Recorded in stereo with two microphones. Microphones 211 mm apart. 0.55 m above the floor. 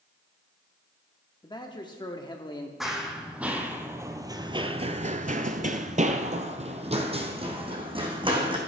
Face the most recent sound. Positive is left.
turn(degrees=-25)  # may be behind; listen again after turning